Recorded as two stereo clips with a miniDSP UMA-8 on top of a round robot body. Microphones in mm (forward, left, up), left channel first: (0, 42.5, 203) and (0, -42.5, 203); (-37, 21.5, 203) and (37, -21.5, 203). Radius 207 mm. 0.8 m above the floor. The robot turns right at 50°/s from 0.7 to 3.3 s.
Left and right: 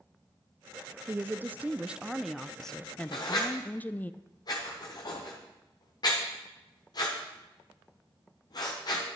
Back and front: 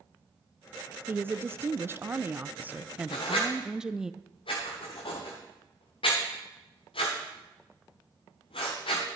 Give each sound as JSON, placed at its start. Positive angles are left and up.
{"t": 1.1, "sound": "a woman speaking", "azimuth_deg": -65, "distance_m": 0.6}
{"t": 3.1, "sound": "writing", "azimuth_deg": 125, "distance_m": 0.6}